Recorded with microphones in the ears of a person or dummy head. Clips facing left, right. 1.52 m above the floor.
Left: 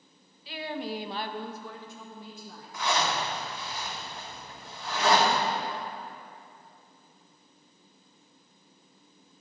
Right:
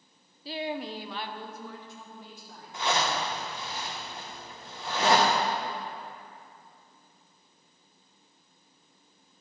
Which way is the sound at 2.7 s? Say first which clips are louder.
Even; 20° right (ahead or behind).